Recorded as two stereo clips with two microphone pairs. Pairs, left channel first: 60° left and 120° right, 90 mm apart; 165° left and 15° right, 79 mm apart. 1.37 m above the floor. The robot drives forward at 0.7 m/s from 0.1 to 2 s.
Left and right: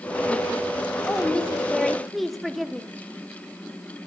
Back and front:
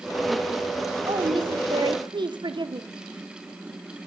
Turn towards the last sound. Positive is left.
turn(degrees=-30)